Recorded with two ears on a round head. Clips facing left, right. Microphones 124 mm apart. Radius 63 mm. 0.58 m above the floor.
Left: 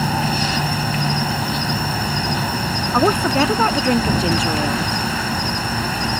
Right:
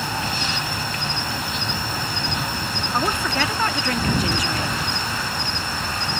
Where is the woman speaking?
25° left (ahead or behind).